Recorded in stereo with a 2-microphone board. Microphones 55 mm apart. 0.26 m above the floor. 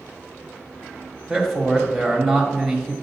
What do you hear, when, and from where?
1.3 s a man speaking: centre (ahead or behind), 0.9 m